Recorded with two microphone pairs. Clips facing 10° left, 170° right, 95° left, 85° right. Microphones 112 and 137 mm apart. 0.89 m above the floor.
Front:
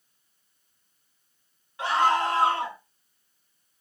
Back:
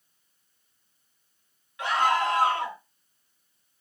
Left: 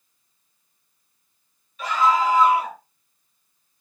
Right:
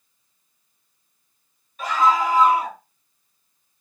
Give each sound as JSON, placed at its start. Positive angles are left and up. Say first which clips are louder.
{"t": 1.8, "sound": "a scream", "louder": "front 1 dB, even", "azimuth_deg": -50, "distance_m": 1.6}